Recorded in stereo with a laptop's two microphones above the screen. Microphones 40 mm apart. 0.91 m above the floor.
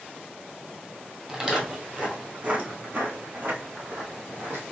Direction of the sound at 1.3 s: 20° right (ahead or behind).